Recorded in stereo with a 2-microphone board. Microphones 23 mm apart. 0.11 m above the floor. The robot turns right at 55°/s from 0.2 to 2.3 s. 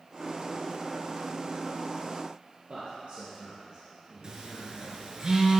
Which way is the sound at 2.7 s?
55° right (ahead or behind).